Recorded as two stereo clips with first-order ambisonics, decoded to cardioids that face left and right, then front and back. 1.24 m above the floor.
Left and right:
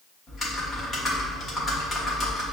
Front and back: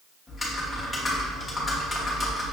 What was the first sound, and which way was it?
Typing on a keyboard, 70° left.